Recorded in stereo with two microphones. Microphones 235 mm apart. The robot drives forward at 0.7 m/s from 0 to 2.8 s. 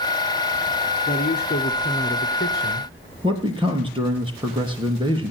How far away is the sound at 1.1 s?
About 1.8 m.